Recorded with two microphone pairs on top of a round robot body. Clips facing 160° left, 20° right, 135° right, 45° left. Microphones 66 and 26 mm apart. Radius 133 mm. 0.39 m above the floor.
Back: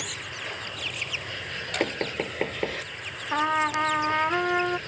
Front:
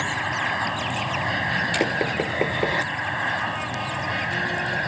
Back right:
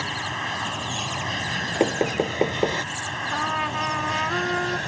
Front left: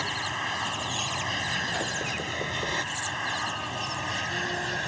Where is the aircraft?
50° right.